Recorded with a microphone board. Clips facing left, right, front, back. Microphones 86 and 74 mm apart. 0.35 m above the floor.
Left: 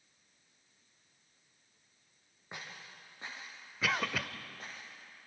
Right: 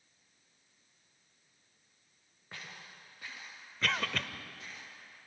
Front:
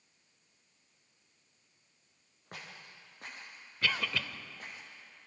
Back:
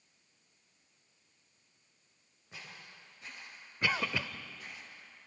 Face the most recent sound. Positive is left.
turn(degrees=160)